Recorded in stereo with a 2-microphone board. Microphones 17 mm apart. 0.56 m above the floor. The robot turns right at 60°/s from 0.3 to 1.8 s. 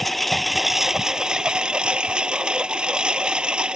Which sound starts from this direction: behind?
A lawn mower, at 0.0 s.